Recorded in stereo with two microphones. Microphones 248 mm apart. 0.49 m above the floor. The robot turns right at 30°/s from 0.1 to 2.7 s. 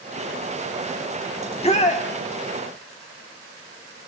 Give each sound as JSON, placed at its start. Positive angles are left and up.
{"t": 1.4, "sound": "a shout", "side_deg": 20, "distance_m": 1.3}